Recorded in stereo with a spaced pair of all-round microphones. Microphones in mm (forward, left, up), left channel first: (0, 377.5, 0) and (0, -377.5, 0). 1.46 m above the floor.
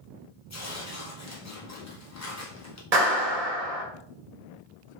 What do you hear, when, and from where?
0.5 s tearing paper: 20° left (ahead or behind), 0.6 m
2.9 s a clap: 50° right (ahead or behind), 1.0 m